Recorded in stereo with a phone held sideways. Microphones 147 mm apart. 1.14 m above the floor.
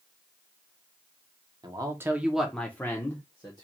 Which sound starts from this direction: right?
A man speaking, at 1.6 s.